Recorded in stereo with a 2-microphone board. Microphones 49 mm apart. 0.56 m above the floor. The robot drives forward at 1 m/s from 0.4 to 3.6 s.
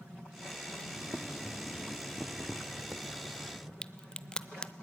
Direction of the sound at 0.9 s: 5° right (ahead or behind).